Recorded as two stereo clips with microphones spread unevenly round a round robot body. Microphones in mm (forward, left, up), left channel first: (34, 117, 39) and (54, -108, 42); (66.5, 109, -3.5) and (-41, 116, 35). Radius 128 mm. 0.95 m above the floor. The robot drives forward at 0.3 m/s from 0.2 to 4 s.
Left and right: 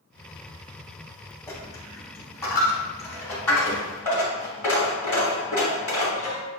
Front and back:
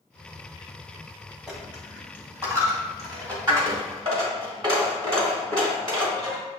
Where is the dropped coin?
160° left, 0.8 m; by 6.4 s 175° left, 1.3 m.